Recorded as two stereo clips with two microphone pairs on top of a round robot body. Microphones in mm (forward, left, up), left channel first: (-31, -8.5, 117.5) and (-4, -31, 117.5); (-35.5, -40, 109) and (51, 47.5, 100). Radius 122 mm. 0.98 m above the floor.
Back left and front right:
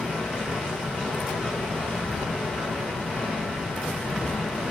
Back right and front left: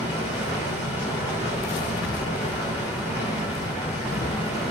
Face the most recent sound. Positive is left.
turn(degrees=75)